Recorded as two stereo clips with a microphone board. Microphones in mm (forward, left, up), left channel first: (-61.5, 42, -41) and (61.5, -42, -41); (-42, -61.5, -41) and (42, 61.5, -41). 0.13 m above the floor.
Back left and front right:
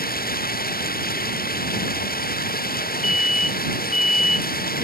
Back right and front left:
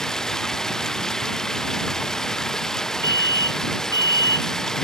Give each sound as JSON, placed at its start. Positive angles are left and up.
{"t": 0.0, "sound": "running water", "azimuth_deg": 150}
{"t": 3.0, "sound": "an alarm", "azimuth_deg": 120}